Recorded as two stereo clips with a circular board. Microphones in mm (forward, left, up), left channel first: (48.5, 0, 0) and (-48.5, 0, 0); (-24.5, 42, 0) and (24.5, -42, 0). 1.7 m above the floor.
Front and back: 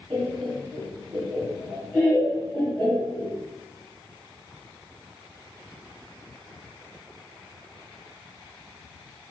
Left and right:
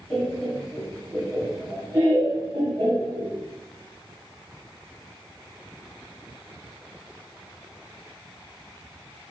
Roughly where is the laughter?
Behind.